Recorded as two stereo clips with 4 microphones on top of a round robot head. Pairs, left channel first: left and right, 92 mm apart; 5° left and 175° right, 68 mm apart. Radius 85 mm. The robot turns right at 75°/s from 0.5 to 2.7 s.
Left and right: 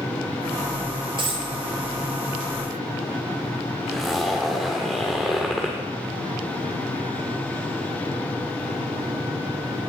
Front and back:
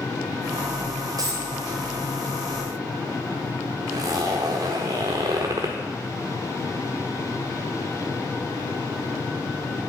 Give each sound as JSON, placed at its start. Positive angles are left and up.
{"t": 1.2, "sound": "a dropped coin", "azimuth_deg": -130, "distance_m": 0.6}
{"t": 3.9, "sound": "a zipper", "azimuth_deg": 180, "distance_m": 1.0}